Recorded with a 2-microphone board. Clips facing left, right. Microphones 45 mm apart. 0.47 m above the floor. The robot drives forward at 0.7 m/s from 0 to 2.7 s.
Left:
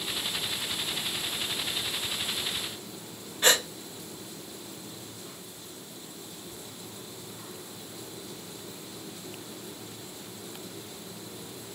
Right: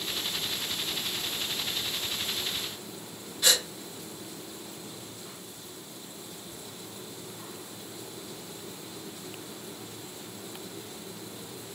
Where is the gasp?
40° left (ahead or behind), 0.7 m.